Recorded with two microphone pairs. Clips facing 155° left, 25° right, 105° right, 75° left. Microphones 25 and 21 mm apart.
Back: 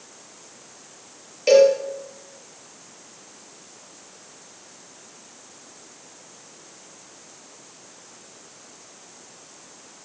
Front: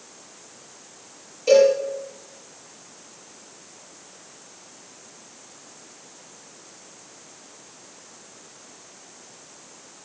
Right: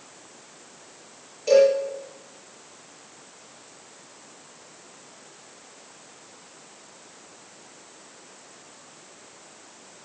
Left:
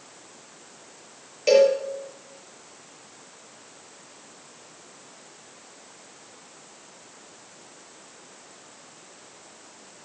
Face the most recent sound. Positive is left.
turn(degrees=125)